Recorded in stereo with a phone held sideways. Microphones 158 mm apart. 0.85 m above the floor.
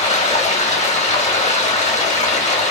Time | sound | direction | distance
0.0 | running water | 45° left (ahead or behind) | 1.1 m